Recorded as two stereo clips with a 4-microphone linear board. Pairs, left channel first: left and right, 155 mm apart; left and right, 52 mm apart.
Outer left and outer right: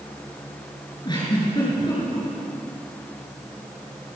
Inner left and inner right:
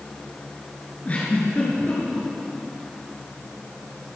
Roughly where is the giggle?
Left.